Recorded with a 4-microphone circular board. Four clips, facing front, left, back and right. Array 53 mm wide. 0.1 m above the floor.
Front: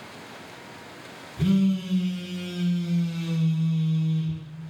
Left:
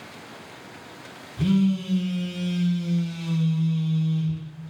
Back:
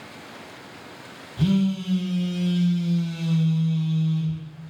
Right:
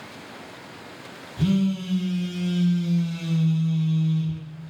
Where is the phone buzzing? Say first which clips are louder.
Left 1 dB, even; 170° right, 1.1 m.